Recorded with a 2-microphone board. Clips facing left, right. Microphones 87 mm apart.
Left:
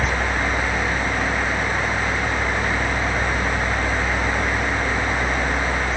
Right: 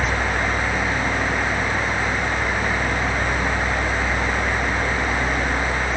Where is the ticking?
No ticking in this recording.